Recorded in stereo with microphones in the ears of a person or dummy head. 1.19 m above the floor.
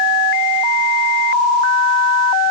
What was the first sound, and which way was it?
Only background noise.